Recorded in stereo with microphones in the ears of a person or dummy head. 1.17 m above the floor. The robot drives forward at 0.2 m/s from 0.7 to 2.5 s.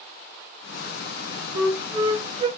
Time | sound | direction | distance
1.5 | a flute | 30° right (ahead or behind) | 2.5 m